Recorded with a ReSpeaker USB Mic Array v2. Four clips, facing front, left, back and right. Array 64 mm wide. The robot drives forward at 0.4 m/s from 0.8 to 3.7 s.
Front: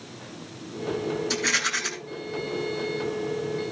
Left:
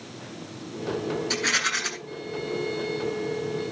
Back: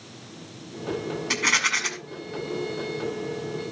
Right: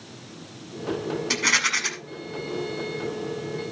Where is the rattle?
155° right, 5.5 m.